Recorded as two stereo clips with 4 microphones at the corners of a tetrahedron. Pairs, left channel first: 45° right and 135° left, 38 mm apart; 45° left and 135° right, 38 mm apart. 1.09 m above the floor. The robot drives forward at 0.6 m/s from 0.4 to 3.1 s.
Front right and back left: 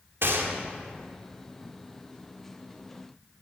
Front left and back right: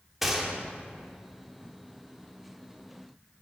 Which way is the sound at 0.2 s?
140° left.